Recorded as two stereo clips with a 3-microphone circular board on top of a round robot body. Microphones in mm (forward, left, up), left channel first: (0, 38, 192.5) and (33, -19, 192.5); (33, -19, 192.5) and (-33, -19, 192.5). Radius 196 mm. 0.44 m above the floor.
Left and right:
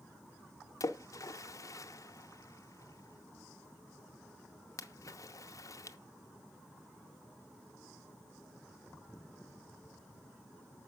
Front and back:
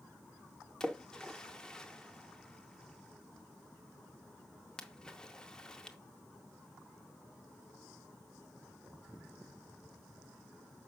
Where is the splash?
80° left, 0.7 m.